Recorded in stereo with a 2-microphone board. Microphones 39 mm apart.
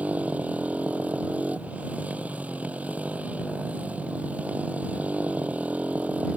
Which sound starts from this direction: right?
A motorcycle, at 0.0 s.